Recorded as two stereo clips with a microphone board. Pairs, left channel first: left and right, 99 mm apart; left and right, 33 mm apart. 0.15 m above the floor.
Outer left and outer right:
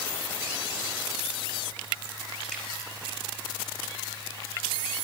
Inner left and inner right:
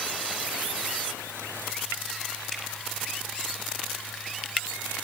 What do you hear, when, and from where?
2.5 s dripping: 10° left (ahead or behind), 6.5 m